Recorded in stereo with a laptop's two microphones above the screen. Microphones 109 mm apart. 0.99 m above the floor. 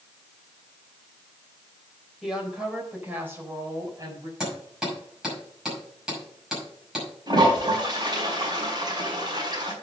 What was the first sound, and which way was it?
A woman speaking, centre (ahead or behind).